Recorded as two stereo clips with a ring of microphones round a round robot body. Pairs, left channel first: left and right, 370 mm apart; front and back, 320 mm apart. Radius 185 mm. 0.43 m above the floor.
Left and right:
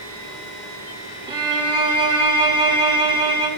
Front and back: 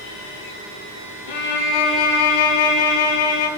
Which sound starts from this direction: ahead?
A violin, at 1.3 s.